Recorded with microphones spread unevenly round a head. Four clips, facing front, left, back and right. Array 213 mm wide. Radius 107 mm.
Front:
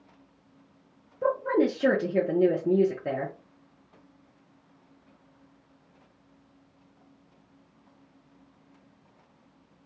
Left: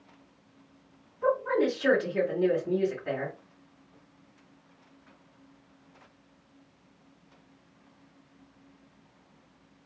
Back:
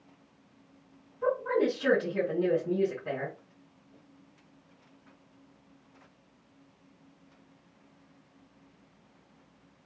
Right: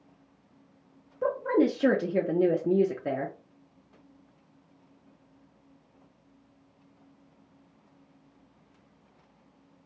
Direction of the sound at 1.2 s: 50° right.